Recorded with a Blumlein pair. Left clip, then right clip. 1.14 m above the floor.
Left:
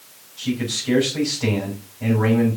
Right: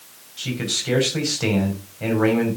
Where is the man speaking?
15° right, 6 m.